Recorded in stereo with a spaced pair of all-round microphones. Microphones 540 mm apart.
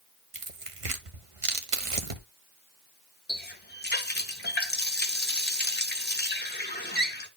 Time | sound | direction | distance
0.3 | tearing paper | 70° right (ahead or behind) | 1.1 m
3.3 | a running tap | 20° left (ahead or behind) | 1.0 m